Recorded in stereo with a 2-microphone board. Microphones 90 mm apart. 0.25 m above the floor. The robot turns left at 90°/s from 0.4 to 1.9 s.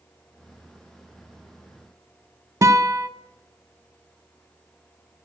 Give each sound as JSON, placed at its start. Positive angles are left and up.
{"t": 2.6, "sound": "a guitar", "side_deg": -40, "distance_m": 0.5}